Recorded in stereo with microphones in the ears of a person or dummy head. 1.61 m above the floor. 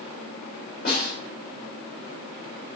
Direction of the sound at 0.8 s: 50° left (ahead or behind).